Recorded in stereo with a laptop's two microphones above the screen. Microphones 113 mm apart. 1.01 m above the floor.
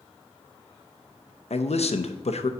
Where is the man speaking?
70° left (ahead or behind), 0.7 m.